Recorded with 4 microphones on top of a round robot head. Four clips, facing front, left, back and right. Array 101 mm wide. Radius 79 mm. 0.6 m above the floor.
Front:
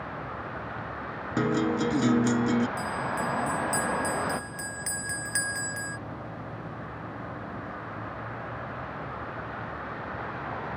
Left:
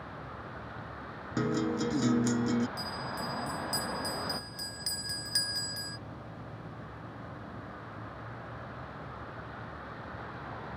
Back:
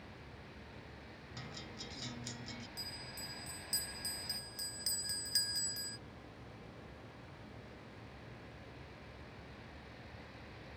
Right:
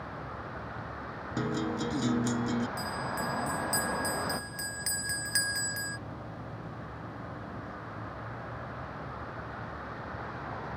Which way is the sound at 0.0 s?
10° right.